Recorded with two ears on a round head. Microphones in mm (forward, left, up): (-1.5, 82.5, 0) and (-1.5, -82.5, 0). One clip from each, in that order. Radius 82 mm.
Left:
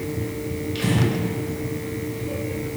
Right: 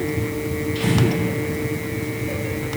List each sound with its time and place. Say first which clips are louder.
0.8 s breathing: right 2 dB; 35° left (ahead or behind), 1.8 m